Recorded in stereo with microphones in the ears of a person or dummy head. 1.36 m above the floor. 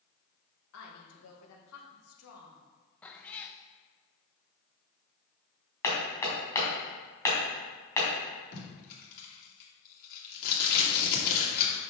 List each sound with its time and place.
0.7 s a woman speaking: 75° left (ahead or behind), 1.8 m
3.0 s a cat meowing: 5° left (ahead or behind), 0.7 m
5.8 s hammering: 15° left (ahead or behind), 2.5 m
8.5 s tape being pulled: 55° left (ahead or behind), 2.5 m